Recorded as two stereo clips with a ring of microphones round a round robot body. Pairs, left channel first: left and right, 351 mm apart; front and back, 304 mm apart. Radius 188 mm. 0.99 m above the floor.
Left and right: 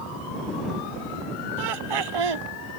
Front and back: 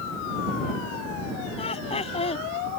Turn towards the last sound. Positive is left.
turn(degrees=-75)